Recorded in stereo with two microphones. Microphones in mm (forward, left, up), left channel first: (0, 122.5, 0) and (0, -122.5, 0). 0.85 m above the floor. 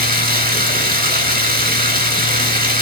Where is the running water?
35° right (ahead or behind), 3.5 m.